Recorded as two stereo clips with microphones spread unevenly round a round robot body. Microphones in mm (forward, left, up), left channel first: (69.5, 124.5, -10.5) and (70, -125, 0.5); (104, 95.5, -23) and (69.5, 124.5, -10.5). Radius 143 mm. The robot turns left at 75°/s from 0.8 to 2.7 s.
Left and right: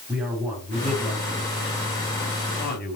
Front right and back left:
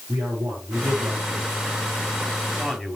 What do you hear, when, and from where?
0.1 s a man speaking: 175° right, 4.5 m; by 3.0 s 40° left, 4.5 m